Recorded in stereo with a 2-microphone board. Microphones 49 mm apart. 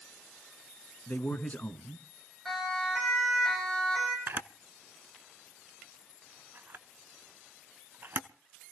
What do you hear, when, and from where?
1.1 s a man speaking: 40° left (ahead or behind), 1.5 m
2.5 s a siren: centre (ahead or behind), 9 m; by 4.2 s 5° left (ahead or behind), 8.5 m
4.3 s a camera shutter: 50° right (ahead or behind), 0.7 m